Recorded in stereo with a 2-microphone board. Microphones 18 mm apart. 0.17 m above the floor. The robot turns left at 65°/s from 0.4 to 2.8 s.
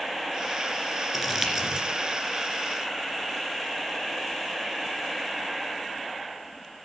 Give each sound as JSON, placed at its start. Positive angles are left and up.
{"t": 1.1, "sound": "crumpling", "side_deg": 0, "distance_m": 2.5}